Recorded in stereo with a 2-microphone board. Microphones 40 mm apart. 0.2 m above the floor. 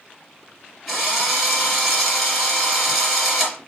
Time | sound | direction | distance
0.9 | a drill | 5° right (ahead or behind) | 4.5 m